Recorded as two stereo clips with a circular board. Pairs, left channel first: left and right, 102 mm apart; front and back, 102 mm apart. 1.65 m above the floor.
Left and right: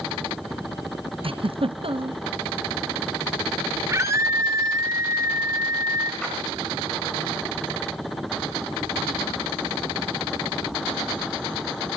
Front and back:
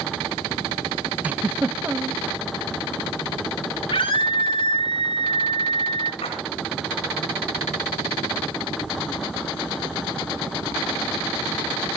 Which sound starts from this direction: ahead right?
A scream, at 3.9 s.